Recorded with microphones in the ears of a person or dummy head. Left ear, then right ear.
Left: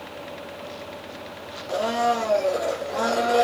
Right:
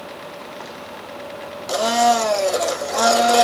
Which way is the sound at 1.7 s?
40° right (ahead or behind).